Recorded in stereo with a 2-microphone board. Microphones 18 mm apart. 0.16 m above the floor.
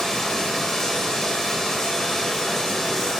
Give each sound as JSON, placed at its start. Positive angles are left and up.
{"t": 0.0, "sound": "running water", "side_deg": 35, "distance_m": 3.5}